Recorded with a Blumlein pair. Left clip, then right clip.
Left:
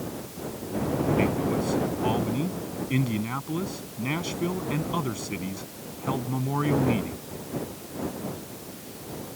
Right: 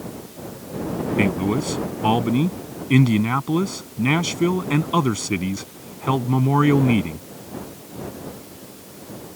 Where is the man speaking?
65° right.